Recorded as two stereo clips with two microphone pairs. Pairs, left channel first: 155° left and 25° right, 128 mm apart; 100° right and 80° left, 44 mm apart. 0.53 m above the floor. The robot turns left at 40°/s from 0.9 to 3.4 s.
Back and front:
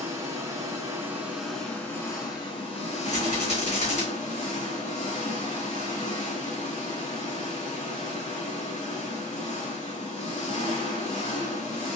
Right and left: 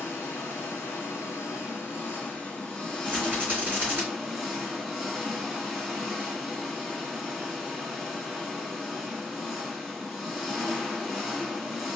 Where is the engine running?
90° right, 1.3 m; by 12.0 s 170° left, 1.3 m.